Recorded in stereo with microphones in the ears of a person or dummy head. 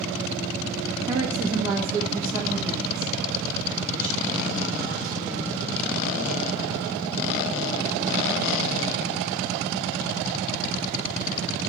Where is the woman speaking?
30° right (ahead or behind), 1.0 m; by 5.6 s 15° right (ahead or behind), 5 m.